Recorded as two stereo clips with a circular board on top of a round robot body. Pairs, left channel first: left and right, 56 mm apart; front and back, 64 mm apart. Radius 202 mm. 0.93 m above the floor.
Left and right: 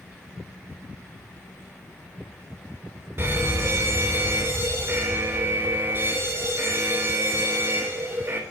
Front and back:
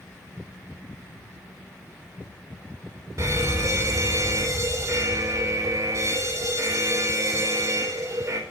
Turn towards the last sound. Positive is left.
turn(degrees=-140)